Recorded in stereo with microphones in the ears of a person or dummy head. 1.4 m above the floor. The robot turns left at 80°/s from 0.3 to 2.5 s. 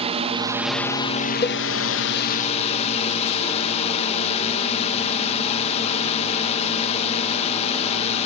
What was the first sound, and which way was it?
A drone, 150° right.